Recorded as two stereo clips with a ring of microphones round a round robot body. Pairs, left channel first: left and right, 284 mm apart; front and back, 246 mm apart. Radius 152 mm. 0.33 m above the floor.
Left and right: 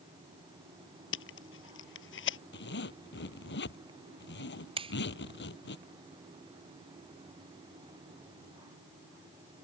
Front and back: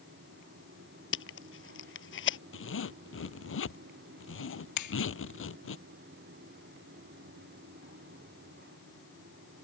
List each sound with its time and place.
1.1 s tape being pulled: 40° left
2.5 s a zipper: 35° left
4.8 s a finger snap: 15° right